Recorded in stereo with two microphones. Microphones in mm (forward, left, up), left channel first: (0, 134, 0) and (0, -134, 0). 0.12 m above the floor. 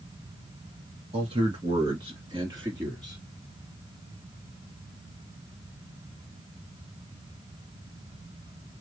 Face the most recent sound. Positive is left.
turn(degrees=-15)  # may be behind; listen again after turning